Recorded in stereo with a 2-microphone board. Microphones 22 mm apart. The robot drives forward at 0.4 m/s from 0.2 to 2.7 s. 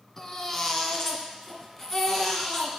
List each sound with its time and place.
0.2 s a baby crying: 15° left (ahead or behind), 1.2 m; by 2.8 s 10° left (ahead or behind), 2 m